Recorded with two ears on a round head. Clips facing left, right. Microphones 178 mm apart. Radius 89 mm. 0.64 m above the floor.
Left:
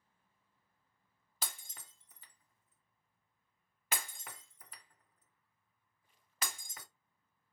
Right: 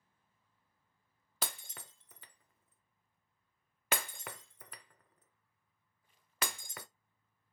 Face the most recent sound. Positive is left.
turn(degrees=-50)  # may be behind; listen again after turning